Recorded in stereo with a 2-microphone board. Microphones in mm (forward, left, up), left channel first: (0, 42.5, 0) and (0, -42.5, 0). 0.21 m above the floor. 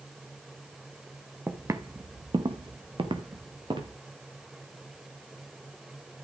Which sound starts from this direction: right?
Footsteps, at 1.5 s.